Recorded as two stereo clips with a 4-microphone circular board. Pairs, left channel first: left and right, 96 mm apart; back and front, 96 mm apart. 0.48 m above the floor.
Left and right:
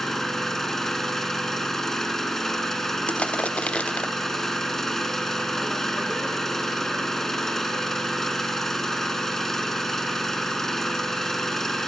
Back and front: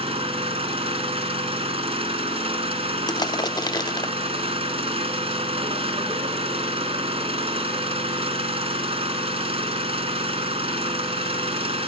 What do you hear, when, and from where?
0.0 s an engine running: 5° left, 1.2 m
3.1 s crushing: 165° left, 0.6 m